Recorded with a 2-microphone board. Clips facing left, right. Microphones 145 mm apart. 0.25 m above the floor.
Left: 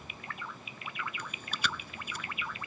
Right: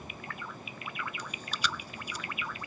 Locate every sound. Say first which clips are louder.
1.2 s chewing: right 2 dB; 60° left (ahead or behind)